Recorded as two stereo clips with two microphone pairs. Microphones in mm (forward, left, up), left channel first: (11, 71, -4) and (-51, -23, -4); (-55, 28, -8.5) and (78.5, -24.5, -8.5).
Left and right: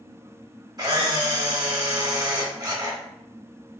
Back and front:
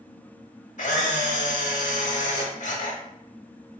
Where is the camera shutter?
Straight behind, 0.7 m.